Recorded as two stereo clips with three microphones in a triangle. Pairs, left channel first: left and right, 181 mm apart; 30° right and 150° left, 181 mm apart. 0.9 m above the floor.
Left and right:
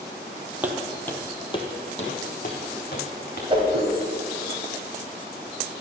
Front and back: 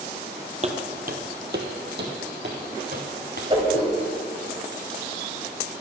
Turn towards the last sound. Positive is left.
turn(degrees=-150)